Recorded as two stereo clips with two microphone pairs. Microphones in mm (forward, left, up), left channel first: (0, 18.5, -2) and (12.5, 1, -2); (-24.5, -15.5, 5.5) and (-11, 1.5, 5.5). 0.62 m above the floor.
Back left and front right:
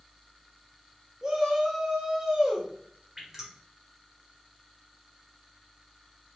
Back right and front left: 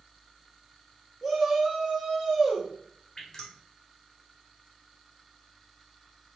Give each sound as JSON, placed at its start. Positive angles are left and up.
{"t": 1.2, "sound": "a shout", "azimuth_deg": -30, "distance_m": 0.6}
{"t": 3.2, "sound": "dripping", "azimuth_deg": -110, "distance_m": 1.1}